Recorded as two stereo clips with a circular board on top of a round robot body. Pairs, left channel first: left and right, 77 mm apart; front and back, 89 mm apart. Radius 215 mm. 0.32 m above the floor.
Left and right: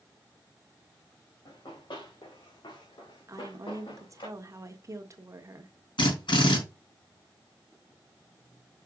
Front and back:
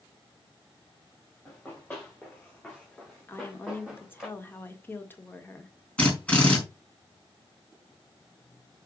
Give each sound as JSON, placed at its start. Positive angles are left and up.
{"t": 1.4, "sound": "running footsteps", "azimuth_deg": 70, "distance_m": 3.5}
{"t": 3.3, "sound": "a woman speaking", "azimuth_deg": -60, "distance_m": 1.8}
{"t": 6.0, "sound": "a drill", "azimuth_deg": 80, "distance_m": 4.5}